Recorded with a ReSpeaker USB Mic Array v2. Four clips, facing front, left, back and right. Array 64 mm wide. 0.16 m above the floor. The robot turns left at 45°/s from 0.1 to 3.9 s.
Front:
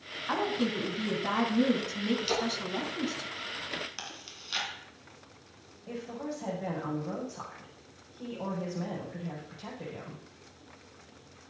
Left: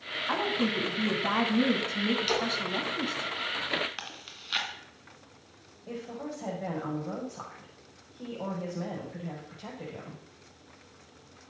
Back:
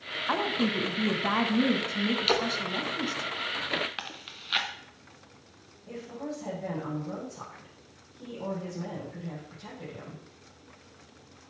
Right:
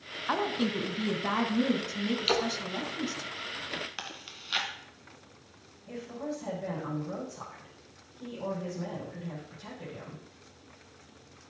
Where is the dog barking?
No dog barking in this recording.